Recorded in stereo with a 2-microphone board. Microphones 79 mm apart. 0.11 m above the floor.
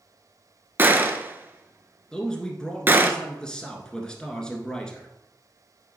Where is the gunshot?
25° right (ahead or behind), 0.6 m.